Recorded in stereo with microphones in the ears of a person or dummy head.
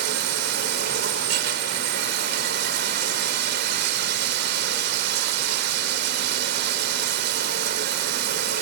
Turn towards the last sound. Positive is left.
turn(degrees=-70)  # may be behind; listen again after turning